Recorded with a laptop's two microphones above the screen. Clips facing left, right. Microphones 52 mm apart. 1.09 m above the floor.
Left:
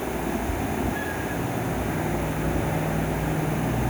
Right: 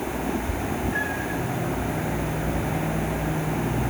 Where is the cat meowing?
60° right (ahead or behind), 1.2 m; by 1.4 s 40° right (ahead or behind), 1.8 m.